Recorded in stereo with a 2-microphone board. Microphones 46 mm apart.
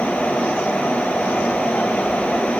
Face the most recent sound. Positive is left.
No sound to turn to.